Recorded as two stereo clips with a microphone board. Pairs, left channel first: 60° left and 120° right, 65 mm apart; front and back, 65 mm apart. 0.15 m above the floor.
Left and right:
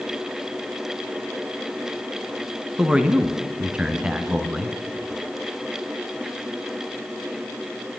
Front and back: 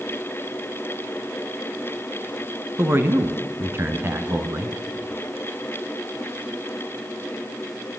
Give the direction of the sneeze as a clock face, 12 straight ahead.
I don't hear a sneeze.